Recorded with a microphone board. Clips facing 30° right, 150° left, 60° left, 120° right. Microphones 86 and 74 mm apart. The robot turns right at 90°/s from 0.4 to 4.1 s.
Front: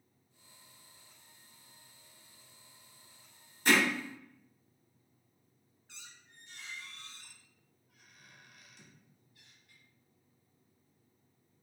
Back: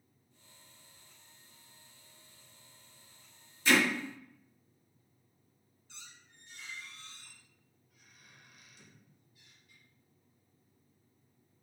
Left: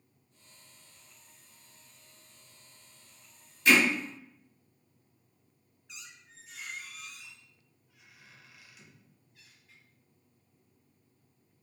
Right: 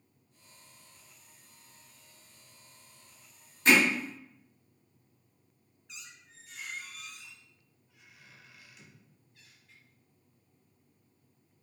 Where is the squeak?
30° right, 1.0 m.